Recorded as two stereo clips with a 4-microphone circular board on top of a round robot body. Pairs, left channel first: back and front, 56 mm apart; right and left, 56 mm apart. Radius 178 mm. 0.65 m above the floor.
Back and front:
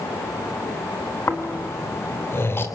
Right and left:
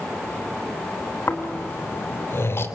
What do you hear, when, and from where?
1.3 s snoring: 135° right, 3 m